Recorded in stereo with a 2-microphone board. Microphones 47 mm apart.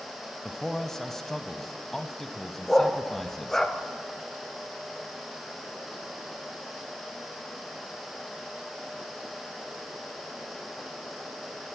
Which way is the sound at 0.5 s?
5° left (ahead or behind).